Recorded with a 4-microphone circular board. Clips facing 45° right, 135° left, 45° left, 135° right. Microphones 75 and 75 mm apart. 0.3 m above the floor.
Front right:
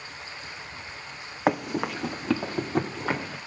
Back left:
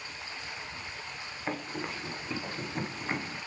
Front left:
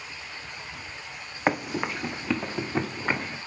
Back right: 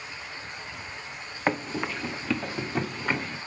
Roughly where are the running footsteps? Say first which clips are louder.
Front right 11 dB, front left 2 dB; ahead right.